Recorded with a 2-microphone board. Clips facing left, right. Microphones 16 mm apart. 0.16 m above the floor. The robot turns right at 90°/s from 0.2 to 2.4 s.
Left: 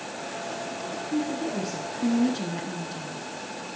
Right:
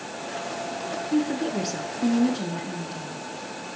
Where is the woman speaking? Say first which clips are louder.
Right 4 dB; 110° right, 2.0 m; by 3.2 s 10° left, 2.0 m.